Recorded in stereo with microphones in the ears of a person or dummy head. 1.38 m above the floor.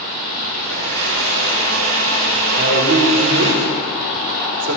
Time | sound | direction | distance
0.5 | a blender | 70° right (ahead or behind) | 3.5 m
2.5 | a man speaking | 65° right (ahead or behind) | 3 m